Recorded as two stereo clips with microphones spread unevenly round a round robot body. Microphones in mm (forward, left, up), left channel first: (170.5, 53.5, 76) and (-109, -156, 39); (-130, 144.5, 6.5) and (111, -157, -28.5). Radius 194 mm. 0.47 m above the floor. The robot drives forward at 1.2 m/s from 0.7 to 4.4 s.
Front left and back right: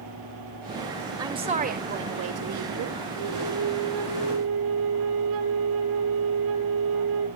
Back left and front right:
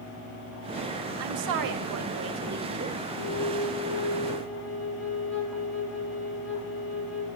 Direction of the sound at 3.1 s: 175° right.